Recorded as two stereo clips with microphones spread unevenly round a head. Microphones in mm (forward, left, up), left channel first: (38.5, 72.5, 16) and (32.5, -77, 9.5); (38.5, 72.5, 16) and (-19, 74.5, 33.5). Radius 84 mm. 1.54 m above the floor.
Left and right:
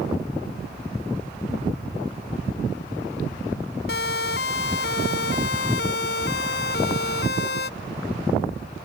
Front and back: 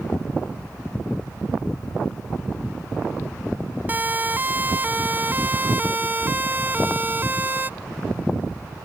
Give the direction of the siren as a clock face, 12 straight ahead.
8 o'clock.